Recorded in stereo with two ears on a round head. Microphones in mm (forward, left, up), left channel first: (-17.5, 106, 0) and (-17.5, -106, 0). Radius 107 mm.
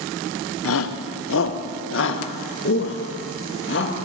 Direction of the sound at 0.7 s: 60° left (ahead or behind).